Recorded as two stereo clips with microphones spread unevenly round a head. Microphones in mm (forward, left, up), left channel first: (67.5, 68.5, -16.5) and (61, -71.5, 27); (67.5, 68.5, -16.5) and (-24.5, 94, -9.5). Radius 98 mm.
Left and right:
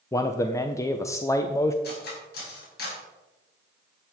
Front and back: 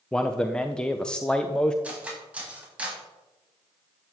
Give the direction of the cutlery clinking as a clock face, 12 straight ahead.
9 o'clock.